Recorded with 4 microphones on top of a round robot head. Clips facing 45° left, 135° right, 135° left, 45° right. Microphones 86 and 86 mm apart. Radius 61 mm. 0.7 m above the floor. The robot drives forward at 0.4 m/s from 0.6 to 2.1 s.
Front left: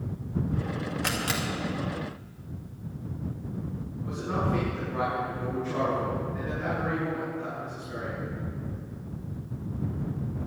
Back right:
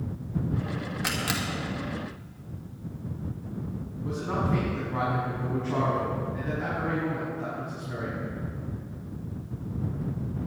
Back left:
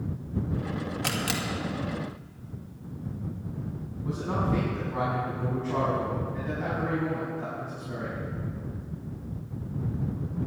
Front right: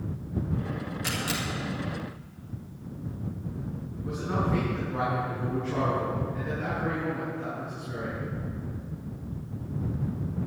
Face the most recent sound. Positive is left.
turn(degrees=-170)